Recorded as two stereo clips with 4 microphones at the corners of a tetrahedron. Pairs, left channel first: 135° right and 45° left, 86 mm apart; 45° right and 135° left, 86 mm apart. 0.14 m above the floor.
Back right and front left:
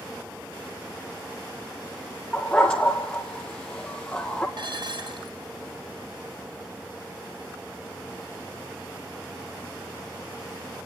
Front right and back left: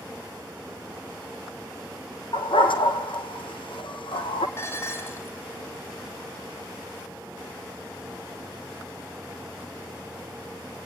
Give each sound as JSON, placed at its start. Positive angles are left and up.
{"t": 2.3, "sound": "a dog barking", "azimuth_deg": -55, "distance_m": 2.5}
{"t": 4.6, "sound": "dishes clattering", "azimuth_deg": 15, "distance_m": 3.5}